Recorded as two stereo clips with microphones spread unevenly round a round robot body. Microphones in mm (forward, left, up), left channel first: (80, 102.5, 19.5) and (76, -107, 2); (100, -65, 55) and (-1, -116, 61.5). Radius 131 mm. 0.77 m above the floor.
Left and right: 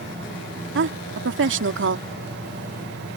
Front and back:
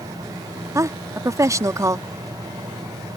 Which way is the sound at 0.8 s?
90° right.